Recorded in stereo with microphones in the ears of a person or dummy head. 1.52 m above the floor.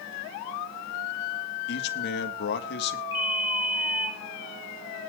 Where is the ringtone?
20° left (ahead or behind), 4.5 m.